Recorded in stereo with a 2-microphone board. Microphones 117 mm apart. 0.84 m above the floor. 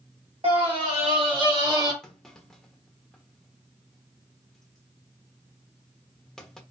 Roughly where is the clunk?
Centre.